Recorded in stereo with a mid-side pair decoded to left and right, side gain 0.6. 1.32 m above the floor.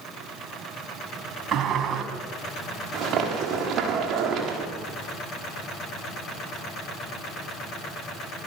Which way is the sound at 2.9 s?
50° right.